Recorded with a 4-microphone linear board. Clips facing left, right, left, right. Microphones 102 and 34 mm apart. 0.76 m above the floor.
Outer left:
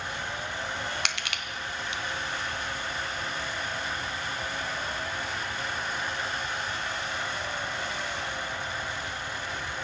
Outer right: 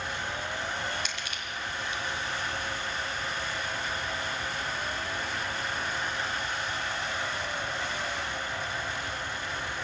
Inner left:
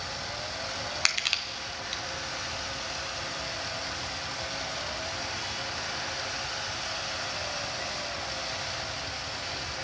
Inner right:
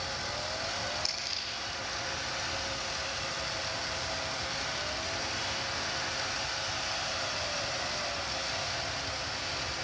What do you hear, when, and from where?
1.1 s crushing: 75° left (ahead or behind), 1.2 m